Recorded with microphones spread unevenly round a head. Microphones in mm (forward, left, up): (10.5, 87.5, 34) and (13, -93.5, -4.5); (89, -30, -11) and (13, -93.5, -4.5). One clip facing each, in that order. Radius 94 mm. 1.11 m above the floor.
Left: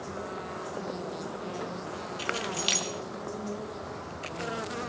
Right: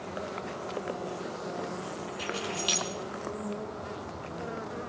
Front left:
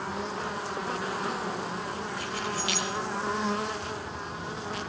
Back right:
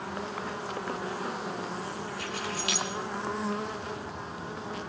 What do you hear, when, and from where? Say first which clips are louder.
2.2 s keys jangling: left 1 dB, front left 2 dB; 155° left, 1.7 m